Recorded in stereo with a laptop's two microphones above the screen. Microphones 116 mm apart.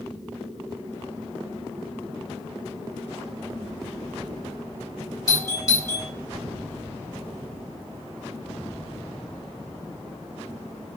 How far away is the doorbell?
About 3.5 m.